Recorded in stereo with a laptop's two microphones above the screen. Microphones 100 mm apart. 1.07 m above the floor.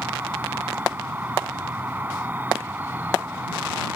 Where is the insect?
20° right (ahead or behind).